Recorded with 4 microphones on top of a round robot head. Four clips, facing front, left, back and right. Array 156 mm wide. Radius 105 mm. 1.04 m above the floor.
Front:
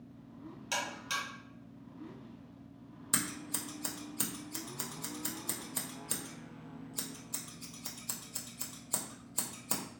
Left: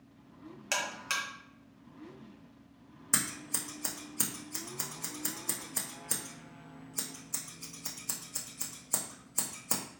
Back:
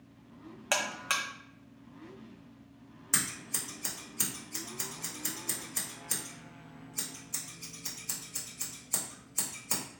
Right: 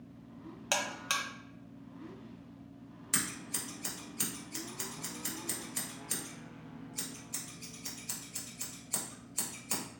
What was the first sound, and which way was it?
A buzzer, 155° right.